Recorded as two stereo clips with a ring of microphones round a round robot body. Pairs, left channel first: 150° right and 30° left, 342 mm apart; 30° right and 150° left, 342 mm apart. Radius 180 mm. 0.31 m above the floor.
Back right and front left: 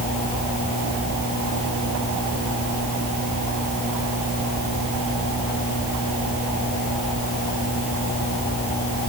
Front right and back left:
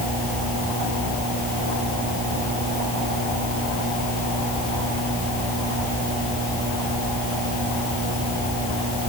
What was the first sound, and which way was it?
Only background noise.